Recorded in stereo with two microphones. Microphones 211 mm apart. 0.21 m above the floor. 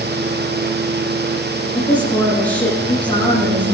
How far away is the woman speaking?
About 7.5 m.